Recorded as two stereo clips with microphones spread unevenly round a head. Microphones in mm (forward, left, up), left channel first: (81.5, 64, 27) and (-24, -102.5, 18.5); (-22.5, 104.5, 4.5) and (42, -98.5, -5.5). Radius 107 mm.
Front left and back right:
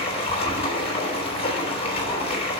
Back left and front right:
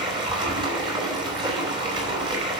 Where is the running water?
5° right, 4 m.